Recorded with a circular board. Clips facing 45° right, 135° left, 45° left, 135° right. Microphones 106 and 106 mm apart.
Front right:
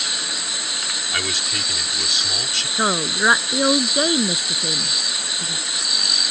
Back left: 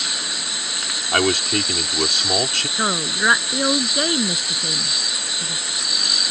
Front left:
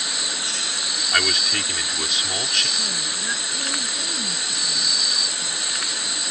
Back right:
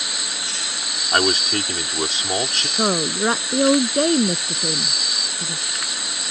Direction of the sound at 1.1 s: 170° left.